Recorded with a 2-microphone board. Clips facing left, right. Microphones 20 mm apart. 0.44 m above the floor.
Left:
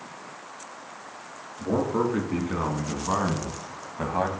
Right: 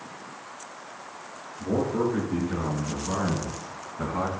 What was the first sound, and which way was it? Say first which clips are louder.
A man speaking: left 1 dB; 80° left.